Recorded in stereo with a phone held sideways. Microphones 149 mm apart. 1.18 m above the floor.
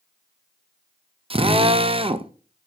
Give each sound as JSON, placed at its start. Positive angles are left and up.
{"t": 1.3, "sound": "a drill", "side_deg": -40, "distance_m": 0.5}